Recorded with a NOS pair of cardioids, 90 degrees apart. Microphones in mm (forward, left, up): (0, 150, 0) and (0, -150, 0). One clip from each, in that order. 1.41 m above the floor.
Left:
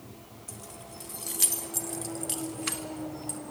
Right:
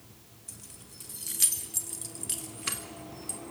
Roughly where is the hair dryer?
No hair dryer in this recording.